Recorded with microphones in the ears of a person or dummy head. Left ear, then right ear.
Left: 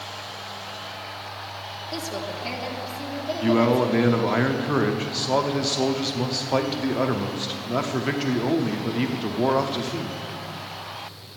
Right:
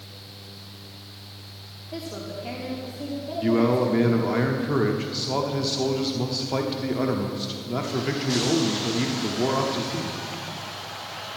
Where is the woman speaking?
55° left (ahead or behind), 1.9 m; by 4.2 s 5° left (ahead or behind), 1.7 m.